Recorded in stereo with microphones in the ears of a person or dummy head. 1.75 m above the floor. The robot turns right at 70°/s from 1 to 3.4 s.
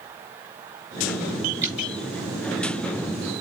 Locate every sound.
1.6 s dripping: 15° right (ahead or behind), 4 m; by 1.9 s 5° left (ahead or behind), 4 m